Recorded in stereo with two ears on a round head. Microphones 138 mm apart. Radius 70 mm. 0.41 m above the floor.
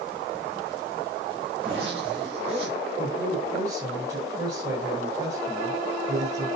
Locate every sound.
1.6 s a zipper: 40° right (ahead or behind), 9 m
3.0 s a man speaking: 25° right (ahead or behind), 8.5 m